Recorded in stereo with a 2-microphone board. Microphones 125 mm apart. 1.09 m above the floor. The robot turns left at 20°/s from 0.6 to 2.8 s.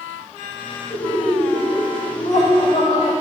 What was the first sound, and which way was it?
Laughter, 105° left.